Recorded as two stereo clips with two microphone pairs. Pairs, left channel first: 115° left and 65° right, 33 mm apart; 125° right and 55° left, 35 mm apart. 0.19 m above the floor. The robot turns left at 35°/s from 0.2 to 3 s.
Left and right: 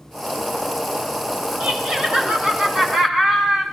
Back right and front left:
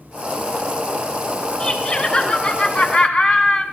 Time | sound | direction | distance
1.6 | laughter | 80° right | 1.7 m